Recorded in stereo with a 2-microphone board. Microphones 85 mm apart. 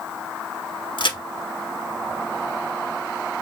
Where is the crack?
70° left (ahead or behind), 1.2 m.